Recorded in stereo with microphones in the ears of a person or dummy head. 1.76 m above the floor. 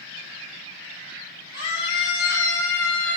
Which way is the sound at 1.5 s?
55° left (ahead or behind).